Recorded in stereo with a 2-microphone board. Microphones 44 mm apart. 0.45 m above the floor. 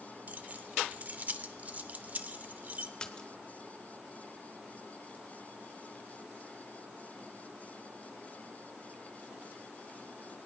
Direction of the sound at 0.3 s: 40° right (ahead or behind).